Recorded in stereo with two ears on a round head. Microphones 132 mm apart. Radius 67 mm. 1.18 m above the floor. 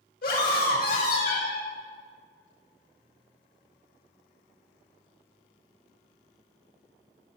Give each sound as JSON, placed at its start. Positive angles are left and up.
{"t": 0.2, "sound": "a scream", "side_deg": 75, "distance_m": 4.0}